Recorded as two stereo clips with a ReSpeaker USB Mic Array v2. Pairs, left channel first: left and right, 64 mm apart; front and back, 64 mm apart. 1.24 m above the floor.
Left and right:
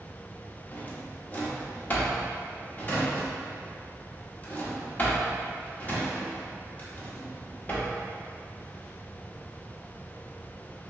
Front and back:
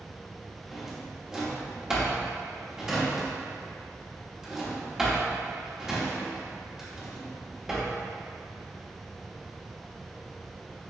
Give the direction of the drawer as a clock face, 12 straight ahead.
8 o'clock.